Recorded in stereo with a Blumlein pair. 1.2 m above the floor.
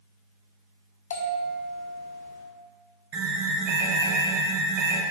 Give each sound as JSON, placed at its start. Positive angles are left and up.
{"t": 1.1, "sound": "a bell", "azimuth_deg": 65, "distance_m": 0.8}
{"t": 3.1, "sound": "an alarm", "azimuth_deg": -50, "distance_m": 0.8}